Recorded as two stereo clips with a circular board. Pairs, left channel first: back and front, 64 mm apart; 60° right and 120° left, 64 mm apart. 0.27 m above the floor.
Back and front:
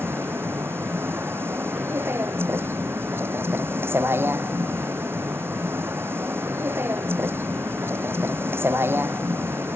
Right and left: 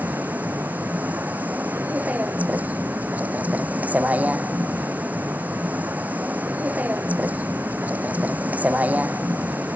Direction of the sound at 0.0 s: 55° left.